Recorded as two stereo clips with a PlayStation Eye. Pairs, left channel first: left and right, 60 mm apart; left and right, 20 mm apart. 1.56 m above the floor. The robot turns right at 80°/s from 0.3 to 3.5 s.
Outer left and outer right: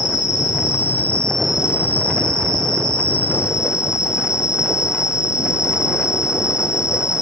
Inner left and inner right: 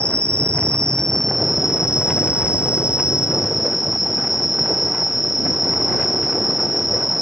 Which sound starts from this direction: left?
An insect, at 0.0 s.